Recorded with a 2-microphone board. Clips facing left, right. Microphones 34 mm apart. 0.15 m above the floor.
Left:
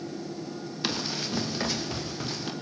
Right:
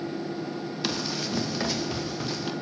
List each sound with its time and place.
0.8 s running footsteps: 5° left (ahead or behind), 3 m; by 2.5 s 5° right (ahead or behind), 4 m